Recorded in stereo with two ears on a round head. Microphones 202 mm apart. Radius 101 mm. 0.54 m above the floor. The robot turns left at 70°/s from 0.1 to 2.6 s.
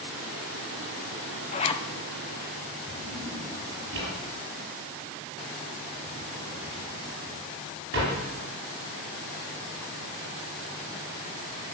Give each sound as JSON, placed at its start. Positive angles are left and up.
{"t": 1.5, "sound": "a zipper", "side_deg": 35, "distance_m": 0.7}
{"t": 2.9, "sound": "a drawer", "side_deg": -55, "distance_m": 7.0}